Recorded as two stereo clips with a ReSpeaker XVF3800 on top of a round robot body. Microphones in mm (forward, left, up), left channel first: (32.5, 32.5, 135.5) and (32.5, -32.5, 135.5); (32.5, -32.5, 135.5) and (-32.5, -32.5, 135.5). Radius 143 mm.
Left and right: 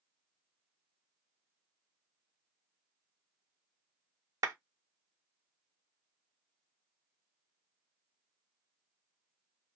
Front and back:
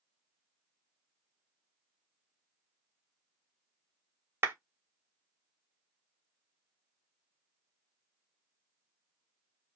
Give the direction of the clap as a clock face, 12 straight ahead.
4 o'clock.